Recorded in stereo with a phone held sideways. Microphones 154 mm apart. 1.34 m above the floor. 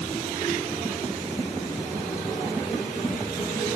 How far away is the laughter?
No laughter in this recording.